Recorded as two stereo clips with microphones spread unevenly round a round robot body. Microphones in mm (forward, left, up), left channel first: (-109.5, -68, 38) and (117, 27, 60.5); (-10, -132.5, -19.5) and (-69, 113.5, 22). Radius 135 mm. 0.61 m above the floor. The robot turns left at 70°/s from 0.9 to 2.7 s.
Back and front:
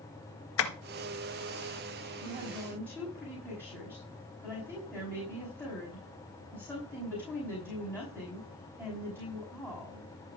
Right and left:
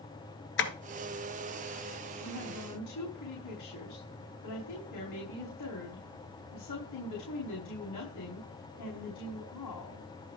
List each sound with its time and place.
0.6 s tapping: 120° right, 1.8 m
2.2 s a woman speaking: 40° right, 5.5 m; by 10.1 s 75° right, 5.5 m